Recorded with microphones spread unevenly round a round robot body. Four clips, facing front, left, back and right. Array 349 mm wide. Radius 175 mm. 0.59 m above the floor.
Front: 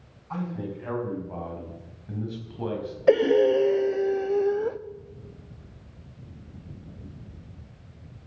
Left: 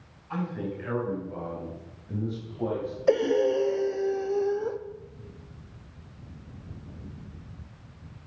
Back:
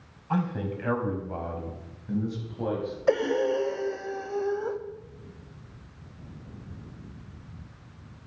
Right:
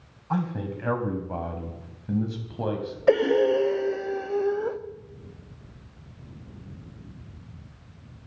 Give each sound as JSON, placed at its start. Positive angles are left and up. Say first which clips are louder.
{"t": 0.3, "sound": "a man speaking", "louder": "right 3 dB, back 4 dB", "azimuth_deg": -125, "distance_m": 5.0}
{"t": 3.1, "sound": "breathing", "louder": "right 3 dB, front 6 dB", "azimuth_deg": -30, "distance_m": 0.9}